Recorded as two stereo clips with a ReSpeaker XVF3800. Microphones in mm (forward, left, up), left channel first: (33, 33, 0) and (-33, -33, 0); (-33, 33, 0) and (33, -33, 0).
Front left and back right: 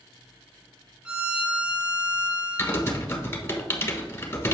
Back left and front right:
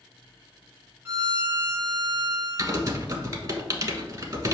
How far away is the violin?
About 1.1 m.